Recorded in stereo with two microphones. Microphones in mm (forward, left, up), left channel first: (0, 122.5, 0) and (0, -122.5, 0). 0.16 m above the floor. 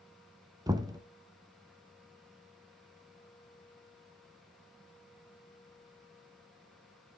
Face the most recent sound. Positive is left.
turn(degrees=-15)  # may be behind; listen again after turning